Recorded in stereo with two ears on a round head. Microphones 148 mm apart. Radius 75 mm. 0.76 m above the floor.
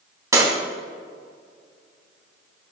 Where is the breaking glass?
20° right (ahead or behind), 3 m.